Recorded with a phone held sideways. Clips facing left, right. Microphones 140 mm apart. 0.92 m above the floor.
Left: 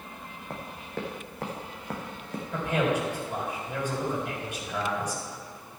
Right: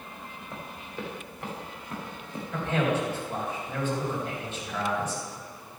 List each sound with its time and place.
0.5 s running footsteps: 65° left (ahead or behind), 2.5 m; by 2.4 s 70° left (ahead or behind), 3 m
2.5 s a man speaking: 15° left (ahead or behind), 3.5 m